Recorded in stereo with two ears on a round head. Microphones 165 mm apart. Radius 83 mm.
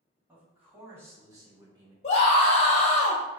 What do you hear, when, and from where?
0.3 s a man speaking: 10° right (ahead or behind), 1.9 m; by 1.9 s 25° right (ahead or behind), 1.2 m
2.0 s a scream: 35° left (ahead or behind), 0.6 m